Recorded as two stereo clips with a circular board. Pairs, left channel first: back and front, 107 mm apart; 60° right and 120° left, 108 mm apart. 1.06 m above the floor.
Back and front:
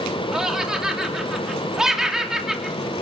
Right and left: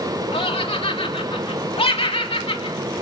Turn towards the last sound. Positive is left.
turn(degrees=-85)